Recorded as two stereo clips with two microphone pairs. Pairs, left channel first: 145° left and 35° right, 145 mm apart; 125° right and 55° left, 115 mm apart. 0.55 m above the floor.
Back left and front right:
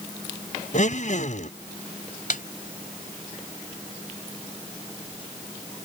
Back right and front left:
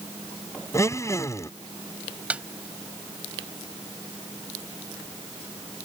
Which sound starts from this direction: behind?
A blender, at 0.7 s.